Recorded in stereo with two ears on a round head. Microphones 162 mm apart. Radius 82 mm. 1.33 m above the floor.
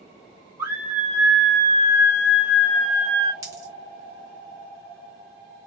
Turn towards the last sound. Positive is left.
turn(degrees=-20)  # may be behind; listen again after turning